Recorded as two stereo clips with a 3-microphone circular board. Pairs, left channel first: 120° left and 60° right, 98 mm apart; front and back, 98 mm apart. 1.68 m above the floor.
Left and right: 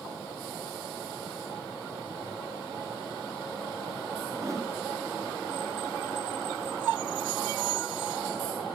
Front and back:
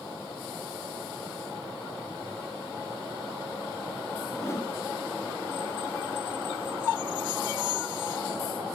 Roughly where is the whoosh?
Ahead right.